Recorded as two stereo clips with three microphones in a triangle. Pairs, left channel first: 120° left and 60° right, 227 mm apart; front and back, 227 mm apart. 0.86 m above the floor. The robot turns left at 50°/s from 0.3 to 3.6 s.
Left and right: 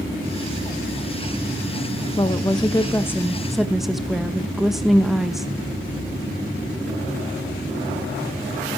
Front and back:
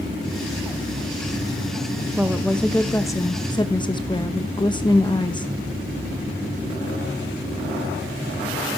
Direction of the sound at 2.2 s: 100° left.